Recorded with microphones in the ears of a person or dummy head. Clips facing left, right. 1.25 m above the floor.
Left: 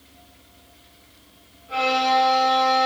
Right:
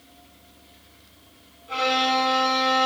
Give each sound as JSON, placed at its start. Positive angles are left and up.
{"t": 1.7, "sound": "a violin", "side_deg": -60, "distance_m": 4.5}